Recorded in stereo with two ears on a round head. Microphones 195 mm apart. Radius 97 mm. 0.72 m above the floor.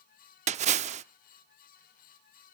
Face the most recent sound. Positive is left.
turn(degrees=-30)  # may be behind; listen again after turning